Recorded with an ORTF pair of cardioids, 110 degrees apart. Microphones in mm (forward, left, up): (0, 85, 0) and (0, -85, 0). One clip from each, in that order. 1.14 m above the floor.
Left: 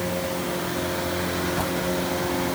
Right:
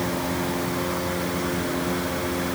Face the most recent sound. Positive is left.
No sound to turn to.